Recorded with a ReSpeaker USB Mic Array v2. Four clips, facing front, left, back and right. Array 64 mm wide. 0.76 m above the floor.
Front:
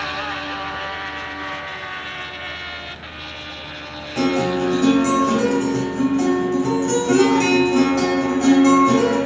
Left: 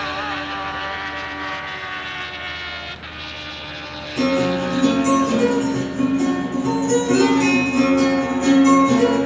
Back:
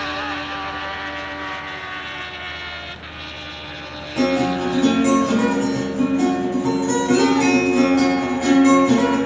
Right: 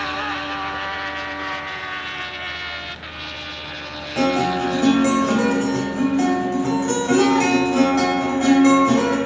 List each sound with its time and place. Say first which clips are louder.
4.2 s a guitar: even, even; 80° right, 2.5 m